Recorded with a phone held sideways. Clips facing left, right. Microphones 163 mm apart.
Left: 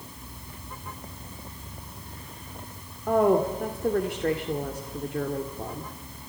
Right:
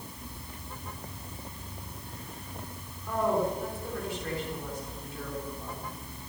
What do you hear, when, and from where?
3.1 s a woman speaking: 65° left (ahead or behind), 2 m